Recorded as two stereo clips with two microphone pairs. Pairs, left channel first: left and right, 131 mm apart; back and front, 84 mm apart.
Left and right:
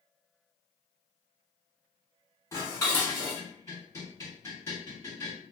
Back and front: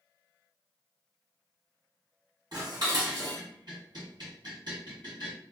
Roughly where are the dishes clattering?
Ahead left.